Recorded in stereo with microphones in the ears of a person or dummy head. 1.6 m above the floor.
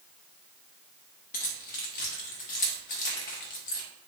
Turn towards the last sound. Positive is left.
turn(degrees=45)  # may be behind; listen again after turning